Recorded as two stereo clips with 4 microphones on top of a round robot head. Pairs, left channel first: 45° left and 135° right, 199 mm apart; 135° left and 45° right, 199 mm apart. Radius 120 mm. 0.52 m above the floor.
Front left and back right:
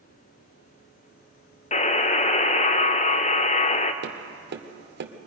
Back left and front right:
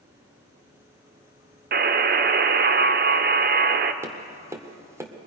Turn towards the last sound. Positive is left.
turn(degrees=-120)